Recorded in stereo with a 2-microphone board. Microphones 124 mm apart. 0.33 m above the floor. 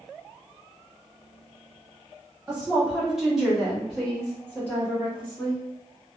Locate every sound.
2.5 s a woman speaking: 10° right (ahead or behind), 1.5 m; by 5.6 s 15° left (ahead or behind), 1.6 m